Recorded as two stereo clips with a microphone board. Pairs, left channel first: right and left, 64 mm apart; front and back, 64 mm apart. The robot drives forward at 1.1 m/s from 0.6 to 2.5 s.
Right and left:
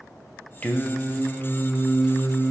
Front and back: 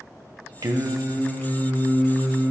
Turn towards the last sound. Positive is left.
turn(degrees=-175)